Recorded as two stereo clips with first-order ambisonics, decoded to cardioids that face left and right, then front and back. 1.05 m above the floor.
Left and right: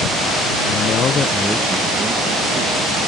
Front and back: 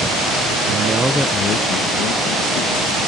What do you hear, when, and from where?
0.7 s a man speaking: 130° left; by 3.0 s 25° right